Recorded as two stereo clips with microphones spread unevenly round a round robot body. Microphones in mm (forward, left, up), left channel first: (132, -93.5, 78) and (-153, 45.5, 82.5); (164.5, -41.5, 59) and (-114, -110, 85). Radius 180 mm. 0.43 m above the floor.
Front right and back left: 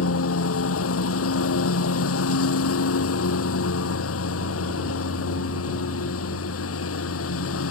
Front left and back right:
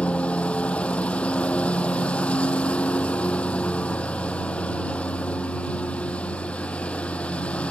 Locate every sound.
0.0 s a lawn mower: 70° right